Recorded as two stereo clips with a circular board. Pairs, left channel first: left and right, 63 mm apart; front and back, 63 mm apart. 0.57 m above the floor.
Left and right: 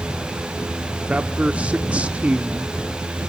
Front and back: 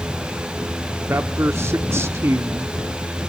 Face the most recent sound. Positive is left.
turn(degrees=-155)